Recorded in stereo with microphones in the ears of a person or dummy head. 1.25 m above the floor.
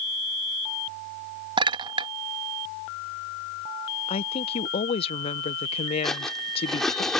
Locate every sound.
1.6 s a clink: 25° right (ahead or behind)
4.1 s a woman speaking: 30° left (ahead or behind)
6.0 s cutlery clinking: 5° left (ahead or behind)